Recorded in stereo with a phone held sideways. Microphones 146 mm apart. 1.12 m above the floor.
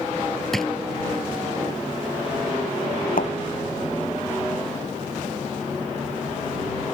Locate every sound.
0.5 s a drawer: centre (ahead or behind)
3.2 s a thud: 80° left